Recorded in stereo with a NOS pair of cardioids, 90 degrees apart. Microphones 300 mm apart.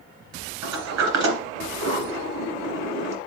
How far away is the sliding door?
About 3 m.